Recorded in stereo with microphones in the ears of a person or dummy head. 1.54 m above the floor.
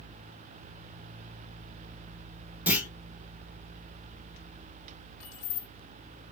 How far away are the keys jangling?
About 1.8 m.